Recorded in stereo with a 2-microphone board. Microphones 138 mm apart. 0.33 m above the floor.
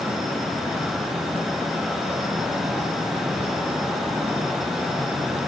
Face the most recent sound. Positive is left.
No sound to turn to.